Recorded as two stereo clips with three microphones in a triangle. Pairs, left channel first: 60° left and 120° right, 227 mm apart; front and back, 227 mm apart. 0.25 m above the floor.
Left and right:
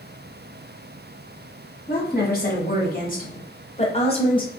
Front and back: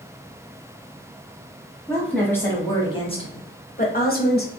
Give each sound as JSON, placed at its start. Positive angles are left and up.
{"t": 1.9, "sound": "a woman speaking", "azimuth_deg": 85, "distance_m": 1.4}